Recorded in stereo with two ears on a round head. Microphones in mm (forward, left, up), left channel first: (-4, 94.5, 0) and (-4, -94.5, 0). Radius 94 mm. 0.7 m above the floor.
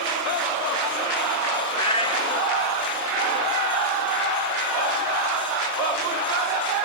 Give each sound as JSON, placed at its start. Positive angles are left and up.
{"t": 1.7, "sound": "a cat meowing", "side_deg": 25, "distance_m": 1.1}